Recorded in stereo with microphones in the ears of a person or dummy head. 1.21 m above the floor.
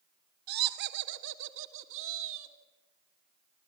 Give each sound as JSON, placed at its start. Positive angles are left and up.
{"t": 0.5, "sound": "laughter", "side_deg": -60, "distance_m": 1.3}